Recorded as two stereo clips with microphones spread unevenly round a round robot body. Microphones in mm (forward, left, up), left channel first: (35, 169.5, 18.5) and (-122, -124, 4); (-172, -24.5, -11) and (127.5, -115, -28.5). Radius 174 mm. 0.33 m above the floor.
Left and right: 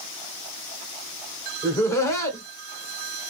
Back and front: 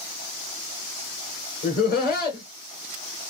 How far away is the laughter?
About 1.2 m.